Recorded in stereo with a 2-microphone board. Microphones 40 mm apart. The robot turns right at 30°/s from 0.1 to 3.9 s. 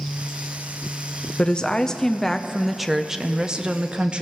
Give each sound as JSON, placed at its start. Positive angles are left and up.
{"t": 1.4, "sound": "a woman speaking", "azimuth_deg": 145, "distance_m": 0.6}